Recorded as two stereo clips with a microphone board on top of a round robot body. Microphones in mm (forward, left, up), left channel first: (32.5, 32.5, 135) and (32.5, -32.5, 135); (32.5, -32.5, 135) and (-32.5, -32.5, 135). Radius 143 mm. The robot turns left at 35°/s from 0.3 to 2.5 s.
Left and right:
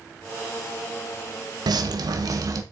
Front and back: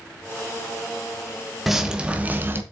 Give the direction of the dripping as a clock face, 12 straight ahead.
3 o'clock.